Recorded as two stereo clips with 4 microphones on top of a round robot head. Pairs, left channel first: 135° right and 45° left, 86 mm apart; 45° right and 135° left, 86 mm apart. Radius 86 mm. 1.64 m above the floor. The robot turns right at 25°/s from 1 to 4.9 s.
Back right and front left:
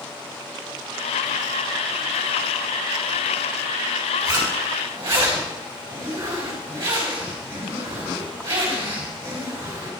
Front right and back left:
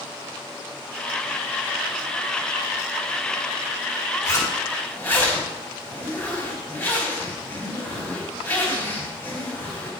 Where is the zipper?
Straight ahead, 3 m; by 9.9 s 15° left, 3 m.